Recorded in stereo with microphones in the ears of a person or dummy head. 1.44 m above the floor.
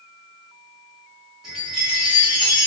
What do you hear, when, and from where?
1.4 s a chime: 5° right (ahead or behind), 2 m